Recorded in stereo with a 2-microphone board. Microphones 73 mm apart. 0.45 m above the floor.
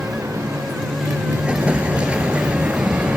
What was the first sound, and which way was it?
A motorcycle, 50° right (ahead or behind).